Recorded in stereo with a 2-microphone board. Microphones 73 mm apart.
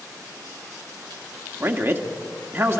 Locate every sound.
1.6 s a man speaking: 35° right (ahead or behind), 1.6 m